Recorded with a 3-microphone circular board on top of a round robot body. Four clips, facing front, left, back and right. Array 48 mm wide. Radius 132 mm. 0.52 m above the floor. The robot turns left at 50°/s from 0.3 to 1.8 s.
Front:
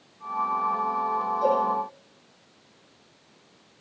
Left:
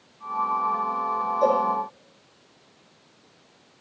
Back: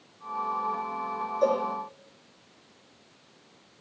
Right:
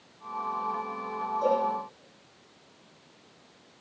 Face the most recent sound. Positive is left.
turn(degrees=120)